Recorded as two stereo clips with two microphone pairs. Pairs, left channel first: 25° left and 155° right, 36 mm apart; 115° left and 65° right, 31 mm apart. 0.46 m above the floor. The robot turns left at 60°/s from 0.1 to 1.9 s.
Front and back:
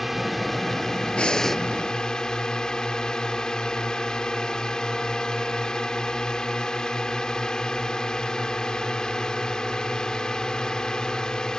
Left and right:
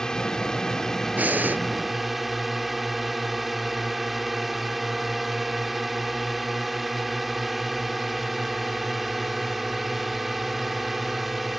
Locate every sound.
0.0 s a drone: 125° left; by 11.6 s 15° left
1.2 s breathing: 35° right; by 1.6 s 60° right